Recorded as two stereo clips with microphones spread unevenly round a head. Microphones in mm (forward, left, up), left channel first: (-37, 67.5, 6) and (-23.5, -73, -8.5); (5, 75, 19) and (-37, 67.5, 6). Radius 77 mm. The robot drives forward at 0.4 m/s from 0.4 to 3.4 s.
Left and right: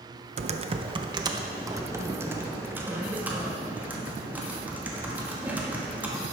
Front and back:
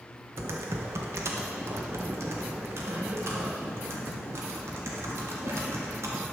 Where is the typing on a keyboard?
130° right, 0.6 m; by 6.2 s 165° right, 1.6 m.